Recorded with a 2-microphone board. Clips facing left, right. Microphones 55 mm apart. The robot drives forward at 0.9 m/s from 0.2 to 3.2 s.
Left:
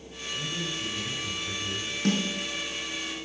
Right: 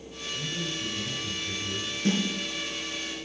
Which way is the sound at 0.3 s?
10° left (ahead or behind).